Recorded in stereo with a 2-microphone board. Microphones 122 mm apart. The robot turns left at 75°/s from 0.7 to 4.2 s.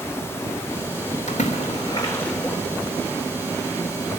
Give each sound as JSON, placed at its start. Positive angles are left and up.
{"t": 1.3, "sound": "a splash", "side_deg": 80, "distance_m": 3.0}